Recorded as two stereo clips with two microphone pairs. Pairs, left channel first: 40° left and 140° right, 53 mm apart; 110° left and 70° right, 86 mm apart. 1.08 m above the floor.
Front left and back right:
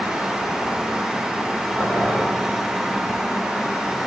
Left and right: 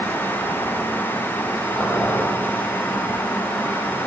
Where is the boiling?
170° left, 4.5 m.